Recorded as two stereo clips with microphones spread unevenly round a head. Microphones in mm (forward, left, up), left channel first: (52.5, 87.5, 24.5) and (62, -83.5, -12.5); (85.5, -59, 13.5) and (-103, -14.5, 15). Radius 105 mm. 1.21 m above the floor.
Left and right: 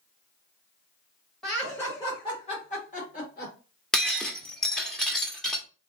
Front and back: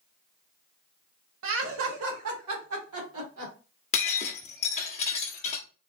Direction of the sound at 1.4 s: 175° right.